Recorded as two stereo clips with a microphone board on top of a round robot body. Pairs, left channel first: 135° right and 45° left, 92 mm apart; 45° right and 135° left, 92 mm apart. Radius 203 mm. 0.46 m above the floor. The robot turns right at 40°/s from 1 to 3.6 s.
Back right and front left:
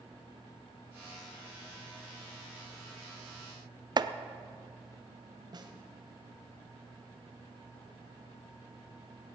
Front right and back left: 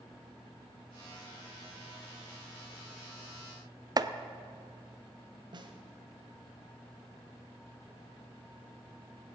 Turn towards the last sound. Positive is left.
turn(degrees=90)